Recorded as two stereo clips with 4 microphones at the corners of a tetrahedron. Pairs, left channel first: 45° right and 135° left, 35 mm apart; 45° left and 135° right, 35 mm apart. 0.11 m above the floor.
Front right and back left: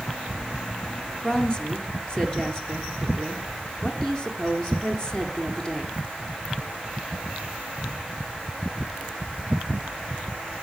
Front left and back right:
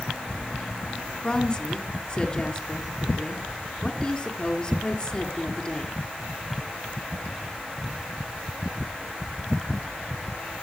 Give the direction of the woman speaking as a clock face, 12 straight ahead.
12 o'clock.